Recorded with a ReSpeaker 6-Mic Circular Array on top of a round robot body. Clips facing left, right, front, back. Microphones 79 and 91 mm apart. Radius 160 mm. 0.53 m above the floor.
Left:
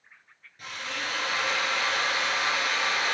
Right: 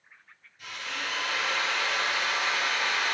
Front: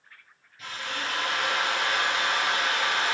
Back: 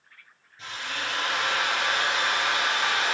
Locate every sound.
0.6 s a drill: 125° left, 6 m